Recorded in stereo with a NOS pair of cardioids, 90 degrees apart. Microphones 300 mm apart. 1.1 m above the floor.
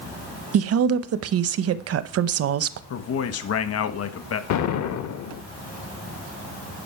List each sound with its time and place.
0.5 s a woman speaking: 55° right, 0.9 m
2.9 s a man speaking: 55° left, 1.3 m
4.5 s an explosion: 65° left, 1.1 m